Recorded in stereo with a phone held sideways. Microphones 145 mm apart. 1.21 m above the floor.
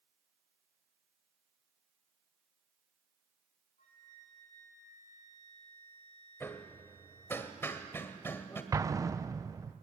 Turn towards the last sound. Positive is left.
turn(degrees=-25)  # may be behind; listen again after turning